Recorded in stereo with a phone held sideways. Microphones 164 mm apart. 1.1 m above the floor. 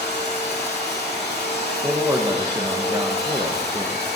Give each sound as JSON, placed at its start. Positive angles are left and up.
{"t": 0.0, "sound": "a machine running", "side_deg": 80, "distance_m": 3.0}
{"t": 1.8, "sound": "a man speaking", "side_deg": -25, "distance_m": 1.3}